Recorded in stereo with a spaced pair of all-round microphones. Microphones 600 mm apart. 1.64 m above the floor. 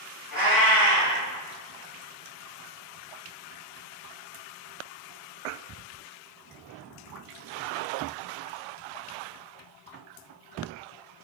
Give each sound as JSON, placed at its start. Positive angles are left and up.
{"t": 0.3, "sound": "a cat meowing", "side_deg": 35, "distance_m": 1.9}